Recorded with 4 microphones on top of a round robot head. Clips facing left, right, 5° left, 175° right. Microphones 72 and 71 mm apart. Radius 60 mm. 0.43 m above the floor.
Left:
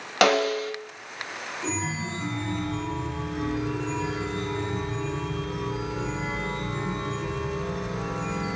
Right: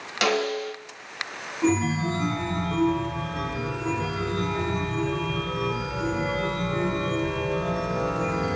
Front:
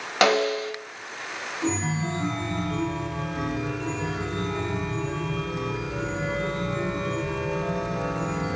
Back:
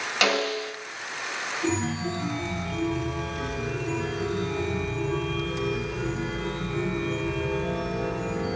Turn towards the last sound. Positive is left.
turn(degrees=-50)